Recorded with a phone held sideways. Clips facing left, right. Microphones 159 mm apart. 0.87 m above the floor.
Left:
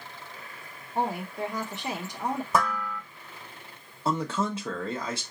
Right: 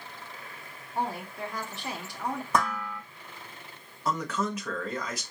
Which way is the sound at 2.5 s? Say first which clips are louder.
Even; 5° left (ahead or behind).